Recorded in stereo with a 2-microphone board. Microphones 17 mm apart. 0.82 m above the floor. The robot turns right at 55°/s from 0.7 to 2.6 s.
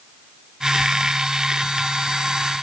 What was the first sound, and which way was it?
Only background noise.